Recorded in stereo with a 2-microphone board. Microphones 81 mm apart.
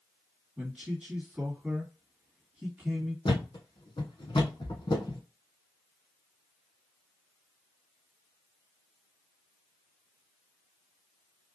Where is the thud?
75° left (ahead or behind), 1.4 m.